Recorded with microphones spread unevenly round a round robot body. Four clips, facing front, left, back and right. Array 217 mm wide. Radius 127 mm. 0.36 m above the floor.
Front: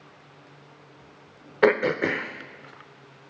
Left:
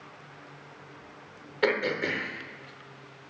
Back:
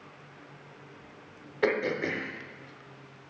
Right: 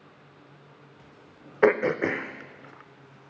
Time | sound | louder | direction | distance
1.6 | throat clearing | right 6 dB, front 7 dB | 25° right | 0.6 m